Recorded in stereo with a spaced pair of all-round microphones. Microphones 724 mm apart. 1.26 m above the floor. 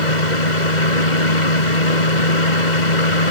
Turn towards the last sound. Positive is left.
turn(degrees=80)